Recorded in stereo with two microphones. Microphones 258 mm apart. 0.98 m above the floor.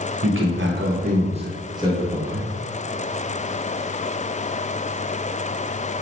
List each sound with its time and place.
0.2 s a man speaking: 55° right (ahead or behind), 0.8 m; by 2.5 s 5° right (ahead or behind), 1.2 m